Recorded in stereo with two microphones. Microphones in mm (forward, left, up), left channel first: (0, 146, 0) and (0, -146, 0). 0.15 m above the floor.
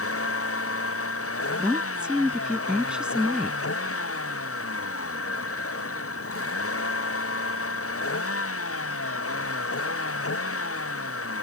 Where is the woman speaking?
5° right (ahead or behind).